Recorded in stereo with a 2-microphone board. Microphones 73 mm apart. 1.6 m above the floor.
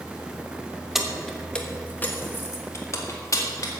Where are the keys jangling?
5° right (ahead or behind), 1.1 m; by 3.7 s 45° left (ahead or behind), 1.9 m.